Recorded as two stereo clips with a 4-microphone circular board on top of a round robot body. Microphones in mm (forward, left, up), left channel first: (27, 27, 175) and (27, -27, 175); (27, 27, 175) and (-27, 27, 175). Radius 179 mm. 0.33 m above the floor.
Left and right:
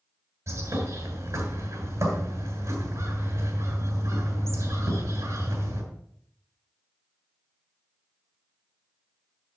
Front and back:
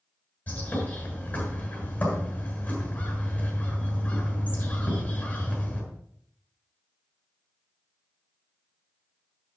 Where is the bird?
65° right, 6.5 m.